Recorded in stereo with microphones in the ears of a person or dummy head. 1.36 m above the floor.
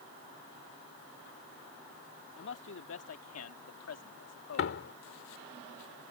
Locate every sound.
2.4 s a man speaking: 70° left (ahead or behind); by 4.8 s 80° left
4.6 s a door slam: 70° left (ahead or behind)